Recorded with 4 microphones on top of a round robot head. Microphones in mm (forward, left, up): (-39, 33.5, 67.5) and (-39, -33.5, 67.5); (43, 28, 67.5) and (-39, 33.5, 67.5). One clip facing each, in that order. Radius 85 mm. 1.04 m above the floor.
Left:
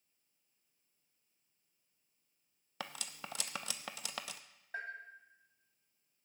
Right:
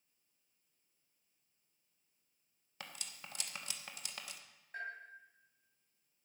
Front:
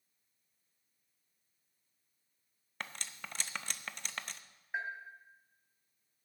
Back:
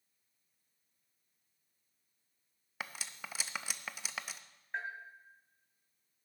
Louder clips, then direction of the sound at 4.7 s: Left 1 dB, front 1 dB; 80° left.